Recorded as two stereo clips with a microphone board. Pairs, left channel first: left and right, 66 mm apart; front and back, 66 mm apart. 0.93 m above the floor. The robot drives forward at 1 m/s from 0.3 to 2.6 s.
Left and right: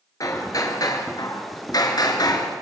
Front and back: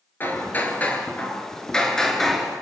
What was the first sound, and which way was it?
Hammering, 60° left.